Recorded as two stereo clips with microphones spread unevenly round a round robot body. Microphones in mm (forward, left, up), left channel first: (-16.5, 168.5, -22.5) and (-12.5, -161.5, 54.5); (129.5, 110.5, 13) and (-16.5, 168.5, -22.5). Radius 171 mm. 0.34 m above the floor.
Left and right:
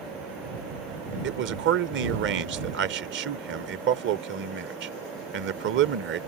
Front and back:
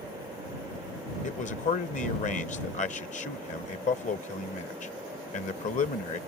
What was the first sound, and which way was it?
A man speaking, 35° right.